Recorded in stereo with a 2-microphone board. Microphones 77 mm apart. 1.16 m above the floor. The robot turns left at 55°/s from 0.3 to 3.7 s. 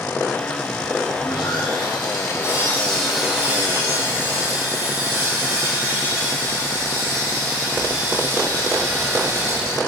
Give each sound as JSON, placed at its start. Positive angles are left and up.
{"t": 1.2, "sound": "sawing", "azimuth_deg": 110, "distance_m": 4.5}